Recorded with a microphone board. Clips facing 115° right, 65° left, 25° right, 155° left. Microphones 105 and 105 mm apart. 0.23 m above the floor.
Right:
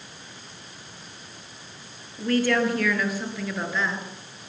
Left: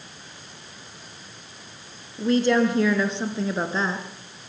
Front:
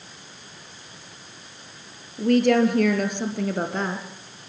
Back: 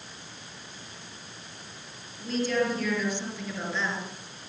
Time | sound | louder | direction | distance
2.2 | a woman speaking | left 3 dB, front 9 dB | 5° right | 4 m